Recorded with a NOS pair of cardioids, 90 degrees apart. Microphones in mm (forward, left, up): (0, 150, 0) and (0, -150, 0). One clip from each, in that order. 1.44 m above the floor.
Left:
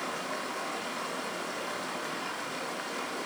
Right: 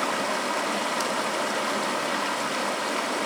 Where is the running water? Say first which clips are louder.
Right 9 dB; 70° right, 2.0 m.